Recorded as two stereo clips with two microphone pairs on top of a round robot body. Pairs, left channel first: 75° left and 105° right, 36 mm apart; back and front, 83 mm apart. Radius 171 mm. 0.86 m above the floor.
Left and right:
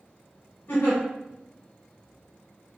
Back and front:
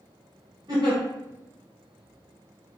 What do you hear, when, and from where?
0.7 s a giggle: 40° left, 0.6 m